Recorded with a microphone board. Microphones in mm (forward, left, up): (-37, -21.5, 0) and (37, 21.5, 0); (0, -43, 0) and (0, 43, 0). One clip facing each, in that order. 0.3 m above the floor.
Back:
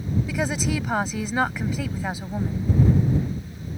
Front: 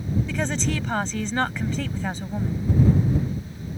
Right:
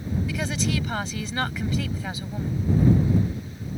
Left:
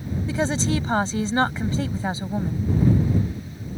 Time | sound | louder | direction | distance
0.3 | a woman speaking | back 2 dB, left 7 dB | 130° left | ?